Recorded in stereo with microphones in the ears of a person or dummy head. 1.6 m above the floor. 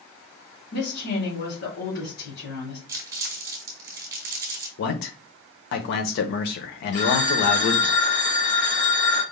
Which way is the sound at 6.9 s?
50° left (ahead or behind).